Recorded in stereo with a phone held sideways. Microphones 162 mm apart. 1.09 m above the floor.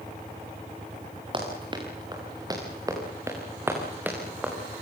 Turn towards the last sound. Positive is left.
turn(degrees=-5)  # may be behind; listen again after turning